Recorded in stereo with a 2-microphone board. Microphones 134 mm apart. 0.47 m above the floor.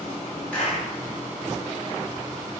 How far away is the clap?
About 6.5 m.